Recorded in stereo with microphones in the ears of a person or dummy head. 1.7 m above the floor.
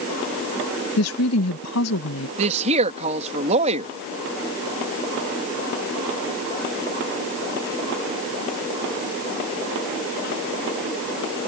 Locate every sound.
1.0 s a woman speaking: 85° left
2.4 s a woman speaking: 40° right (ahead or behind)